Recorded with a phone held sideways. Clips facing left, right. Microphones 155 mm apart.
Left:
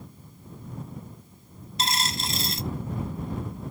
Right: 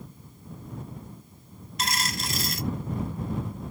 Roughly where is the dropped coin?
Left.